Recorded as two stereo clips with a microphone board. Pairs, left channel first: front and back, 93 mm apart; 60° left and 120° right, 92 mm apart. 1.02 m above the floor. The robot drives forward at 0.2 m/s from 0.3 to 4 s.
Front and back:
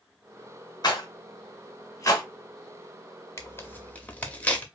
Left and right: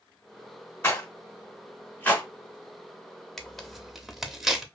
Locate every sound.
0.8 s a rattle: 5° left, 0.9 m; by 2.2 s 10° left, 0.8 m
3.4 s tearing paper: 20° right, 0.5 m; by 4.7 s 35° right, 0.5 m